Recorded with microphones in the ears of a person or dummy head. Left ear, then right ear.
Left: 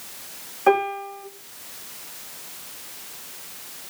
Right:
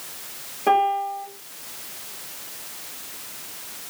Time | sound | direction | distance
0.7 | a piano | 50° left (ahead or behind) | 2.5 m